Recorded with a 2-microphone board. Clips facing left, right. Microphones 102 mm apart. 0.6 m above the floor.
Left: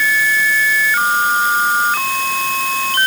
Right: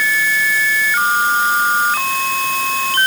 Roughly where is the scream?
I don't hear a scream.